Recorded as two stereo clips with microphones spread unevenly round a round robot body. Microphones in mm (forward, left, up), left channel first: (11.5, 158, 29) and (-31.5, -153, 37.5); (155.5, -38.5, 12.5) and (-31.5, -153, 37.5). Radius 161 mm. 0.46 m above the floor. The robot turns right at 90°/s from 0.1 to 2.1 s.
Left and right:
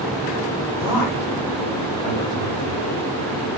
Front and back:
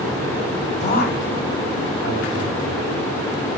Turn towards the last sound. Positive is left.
turn(degrees=90)